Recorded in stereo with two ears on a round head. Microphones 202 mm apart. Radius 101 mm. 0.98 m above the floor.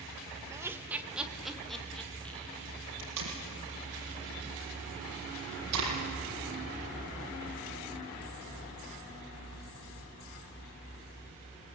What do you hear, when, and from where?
0.5 s laughter: 15° right (ahead or behind), 1.3 m; by 2.6 s 5° left (ahead or behind), 2.5 m
3.0 s tape being pulled: 80° right, 7.5 m